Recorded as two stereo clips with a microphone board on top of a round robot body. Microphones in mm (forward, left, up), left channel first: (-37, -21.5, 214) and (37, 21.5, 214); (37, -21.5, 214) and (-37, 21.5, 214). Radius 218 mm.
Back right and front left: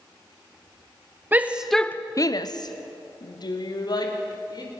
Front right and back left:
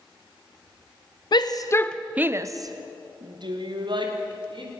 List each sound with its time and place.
1.3 s a shout: 35° right, 1.2 m; by 4.7 s 170° left, 4 m